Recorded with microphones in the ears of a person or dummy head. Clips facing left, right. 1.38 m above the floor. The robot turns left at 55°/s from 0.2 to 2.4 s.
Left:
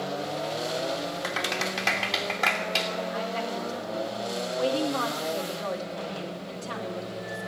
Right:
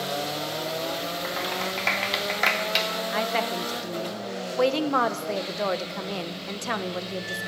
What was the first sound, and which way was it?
A clap, 40° left (ahead or behind).